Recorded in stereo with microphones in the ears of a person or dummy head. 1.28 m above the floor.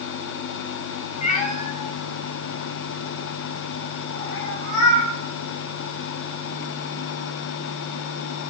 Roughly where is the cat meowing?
Left.